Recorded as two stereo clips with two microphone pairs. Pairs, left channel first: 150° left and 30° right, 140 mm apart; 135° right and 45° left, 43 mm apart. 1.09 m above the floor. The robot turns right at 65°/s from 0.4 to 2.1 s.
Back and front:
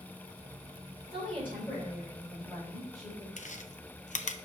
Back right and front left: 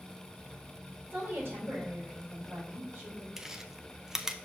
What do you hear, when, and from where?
1.1 s a woman speaking: straight ahead, 4 m; by 3.3 s 65° left, 4 m
3.4 s chewing: 125° left, 0.5 m